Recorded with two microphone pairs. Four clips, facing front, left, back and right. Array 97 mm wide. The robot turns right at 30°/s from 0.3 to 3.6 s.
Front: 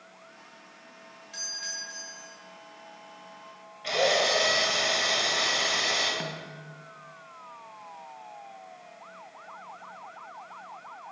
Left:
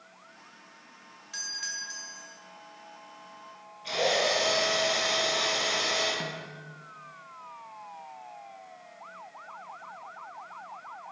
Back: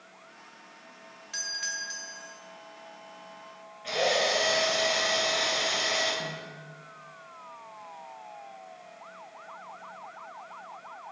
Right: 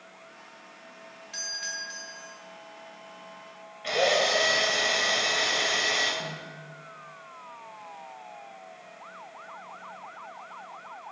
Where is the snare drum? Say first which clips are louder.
Even, front 1 dB; 15° left, 0.6 m.